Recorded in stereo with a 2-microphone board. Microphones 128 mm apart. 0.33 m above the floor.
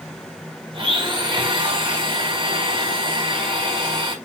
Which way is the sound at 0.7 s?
40° right (ahead or behind).